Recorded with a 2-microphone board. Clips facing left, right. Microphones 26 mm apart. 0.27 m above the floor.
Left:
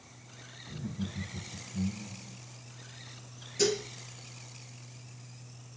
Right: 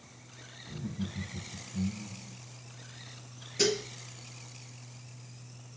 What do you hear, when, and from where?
0.7 s laughter: centre (ahead or behind), 1.6 m
3.6 s dishes clattering: 20° right (ahead or behind), 3 m